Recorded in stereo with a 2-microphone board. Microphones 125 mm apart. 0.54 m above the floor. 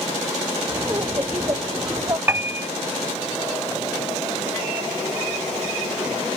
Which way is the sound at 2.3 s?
15° right (ahead or behind).